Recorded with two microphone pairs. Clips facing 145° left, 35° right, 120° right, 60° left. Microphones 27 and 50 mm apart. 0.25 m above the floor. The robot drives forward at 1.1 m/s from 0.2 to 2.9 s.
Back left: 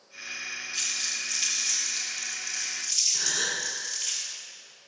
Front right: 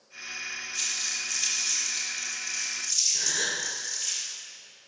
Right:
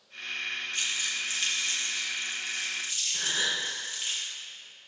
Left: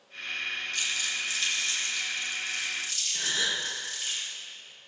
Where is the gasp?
Straight behind, 3 m.